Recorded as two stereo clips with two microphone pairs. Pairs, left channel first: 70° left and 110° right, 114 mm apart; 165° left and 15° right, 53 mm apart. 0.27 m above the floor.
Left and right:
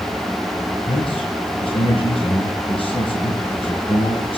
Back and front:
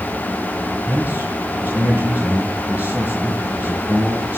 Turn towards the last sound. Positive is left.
turn(degrees=40)